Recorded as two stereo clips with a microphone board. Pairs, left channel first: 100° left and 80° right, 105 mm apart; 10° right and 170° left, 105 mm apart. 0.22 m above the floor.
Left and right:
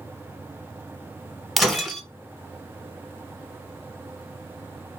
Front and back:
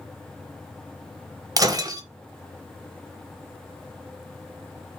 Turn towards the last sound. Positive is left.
turn(degrees=-165)